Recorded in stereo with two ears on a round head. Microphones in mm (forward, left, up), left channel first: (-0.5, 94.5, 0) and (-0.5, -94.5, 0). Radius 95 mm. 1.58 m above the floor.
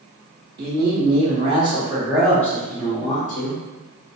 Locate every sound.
0.6 s a man speaking: 50° right (ahead or behind), 1.2 m; by 3.6 s 40° left (ahead or behind), 1.1 m